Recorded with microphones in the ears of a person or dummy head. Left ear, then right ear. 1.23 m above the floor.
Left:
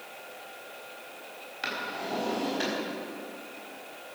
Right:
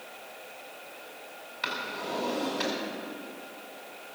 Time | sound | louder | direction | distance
1.6 | a drawer | even | centre (ahead or behind) | 4.5 m